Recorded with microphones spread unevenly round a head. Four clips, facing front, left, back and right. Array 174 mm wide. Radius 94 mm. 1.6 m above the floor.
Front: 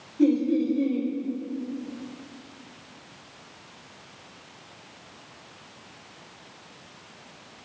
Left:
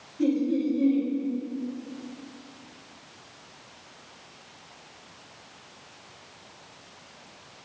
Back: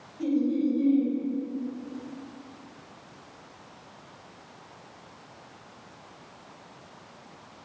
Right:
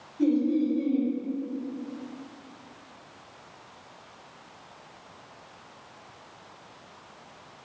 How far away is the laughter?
About 5.5 m.